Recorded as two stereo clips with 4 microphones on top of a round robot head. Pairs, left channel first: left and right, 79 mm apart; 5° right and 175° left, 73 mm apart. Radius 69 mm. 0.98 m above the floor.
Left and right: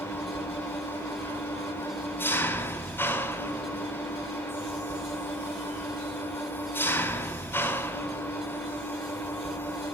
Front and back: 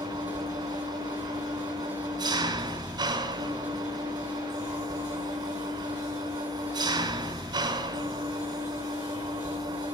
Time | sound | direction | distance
0.0 | an engine running | 150° left | 3 m